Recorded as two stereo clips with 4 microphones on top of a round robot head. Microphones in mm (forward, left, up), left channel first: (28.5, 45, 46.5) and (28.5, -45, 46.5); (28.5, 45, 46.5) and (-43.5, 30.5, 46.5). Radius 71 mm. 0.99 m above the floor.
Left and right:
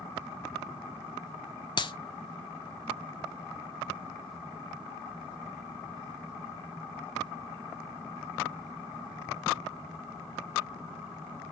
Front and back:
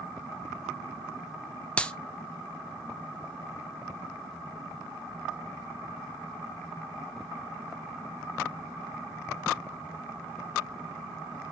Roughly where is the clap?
Left.